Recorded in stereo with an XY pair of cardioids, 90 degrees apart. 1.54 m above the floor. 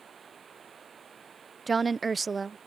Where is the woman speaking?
35° right.